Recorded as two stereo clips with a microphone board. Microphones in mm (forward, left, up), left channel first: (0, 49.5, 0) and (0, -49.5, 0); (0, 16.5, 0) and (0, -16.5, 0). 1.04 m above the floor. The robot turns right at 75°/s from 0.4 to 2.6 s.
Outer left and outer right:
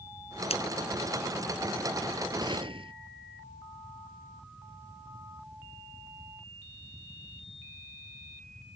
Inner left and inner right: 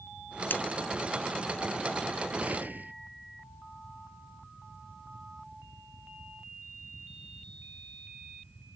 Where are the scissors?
85° left.